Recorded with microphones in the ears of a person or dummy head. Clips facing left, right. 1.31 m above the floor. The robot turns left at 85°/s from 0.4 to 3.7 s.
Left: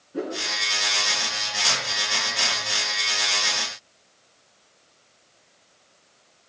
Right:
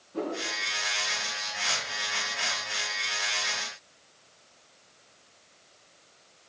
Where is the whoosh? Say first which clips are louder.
Left 2 dB; 15° left (ahead or behind), 4.5 m.